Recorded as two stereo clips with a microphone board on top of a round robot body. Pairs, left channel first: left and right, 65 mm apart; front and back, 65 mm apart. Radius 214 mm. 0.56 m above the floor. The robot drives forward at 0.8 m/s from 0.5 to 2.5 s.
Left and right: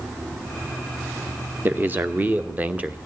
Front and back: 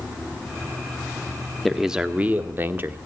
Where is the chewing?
No chewing in this recording.